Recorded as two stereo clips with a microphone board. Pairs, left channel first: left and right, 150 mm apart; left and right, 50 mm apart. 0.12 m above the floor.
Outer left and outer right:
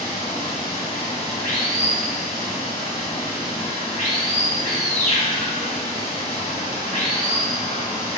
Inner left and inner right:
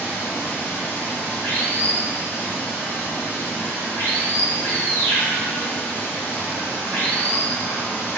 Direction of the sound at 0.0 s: 55° left (ahead or behind).